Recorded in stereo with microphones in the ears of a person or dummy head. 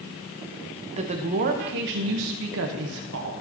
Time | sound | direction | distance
1.0 | a woman speaking | 30° right (ahead or behind) | 1.2 m